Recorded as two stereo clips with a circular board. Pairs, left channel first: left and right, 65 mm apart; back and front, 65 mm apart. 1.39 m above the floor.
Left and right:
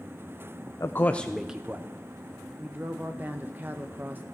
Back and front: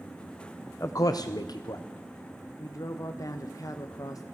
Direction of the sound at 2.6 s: 150° right.